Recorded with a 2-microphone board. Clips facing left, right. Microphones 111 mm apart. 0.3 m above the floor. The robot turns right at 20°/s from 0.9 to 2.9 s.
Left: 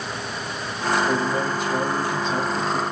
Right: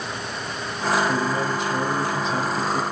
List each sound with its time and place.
1.1 s a man speaking: 110° left, 2.0 m; by 2.8 s 145° left, 2.0 m